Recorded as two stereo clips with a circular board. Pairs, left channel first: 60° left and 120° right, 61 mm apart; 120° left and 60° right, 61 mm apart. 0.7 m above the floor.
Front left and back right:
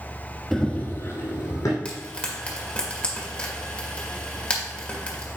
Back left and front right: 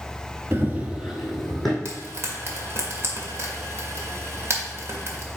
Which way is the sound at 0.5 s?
25° right.